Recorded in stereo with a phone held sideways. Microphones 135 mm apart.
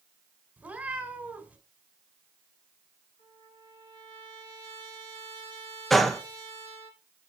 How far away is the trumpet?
About 2.5 m.